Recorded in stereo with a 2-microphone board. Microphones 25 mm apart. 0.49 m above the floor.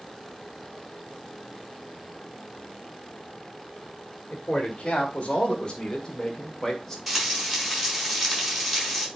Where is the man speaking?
60° left (ahead or behind), 1.8 m; by 7.0 s 15° left (ahead or behind), 1.6 m.